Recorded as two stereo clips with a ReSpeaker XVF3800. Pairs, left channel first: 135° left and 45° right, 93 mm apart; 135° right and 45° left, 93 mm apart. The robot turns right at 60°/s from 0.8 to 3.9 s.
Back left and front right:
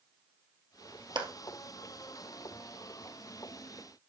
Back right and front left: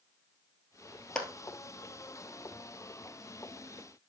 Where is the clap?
55° right, 1.8 m; by 1.3 s 45° right, 1.8 m.